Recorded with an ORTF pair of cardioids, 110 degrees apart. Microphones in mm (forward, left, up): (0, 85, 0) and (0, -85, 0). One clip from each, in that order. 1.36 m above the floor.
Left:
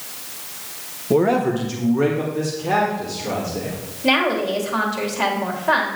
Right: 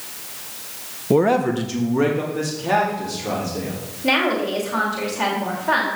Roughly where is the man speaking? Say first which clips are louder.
Even; ahead right.